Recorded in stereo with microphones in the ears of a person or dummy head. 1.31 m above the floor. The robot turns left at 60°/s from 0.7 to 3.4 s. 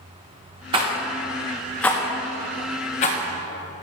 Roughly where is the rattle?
Right.